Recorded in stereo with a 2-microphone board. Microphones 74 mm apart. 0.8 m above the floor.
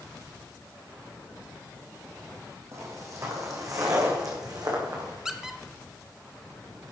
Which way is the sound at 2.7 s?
40° right (ahead or behind).